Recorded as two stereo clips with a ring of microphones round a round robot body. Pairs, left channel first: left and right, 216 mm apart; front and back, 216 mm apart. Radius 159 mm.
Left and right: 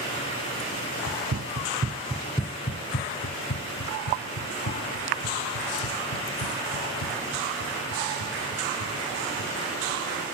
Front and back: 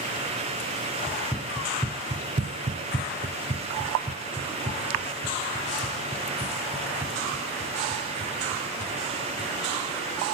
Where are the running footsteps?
90° right, 1.3 m; by 9.5 s 110° left, 7 m.